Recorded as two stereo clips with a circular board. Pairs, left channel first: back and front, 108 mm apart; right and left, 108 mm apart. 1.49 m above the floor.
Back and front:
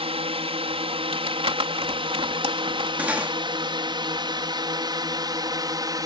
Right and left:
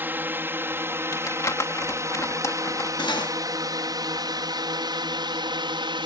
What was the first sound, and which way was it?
A drone, 20° left.